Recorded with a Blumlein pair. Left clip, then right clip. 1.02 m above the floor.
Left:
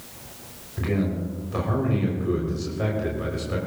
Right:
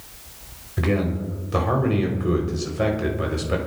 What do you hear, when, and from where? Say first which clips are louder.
0.8 s a man speaking: right 3 dB; 20° right, 3 m